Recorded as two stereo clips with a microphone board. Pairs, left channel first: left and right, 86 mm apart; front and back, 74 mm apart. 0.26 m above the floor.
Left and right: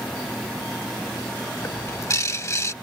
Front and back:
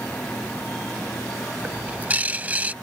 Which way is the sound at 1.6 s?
120° left.